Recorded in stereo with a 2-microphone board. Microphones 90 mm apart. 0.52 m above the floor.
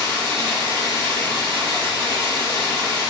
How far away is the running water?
About 1.6 m.